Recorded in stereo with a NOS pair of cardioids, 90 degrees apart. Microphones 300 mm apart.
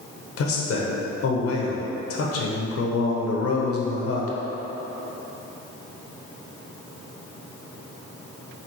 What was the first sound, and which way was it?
A man speaking, 50° left.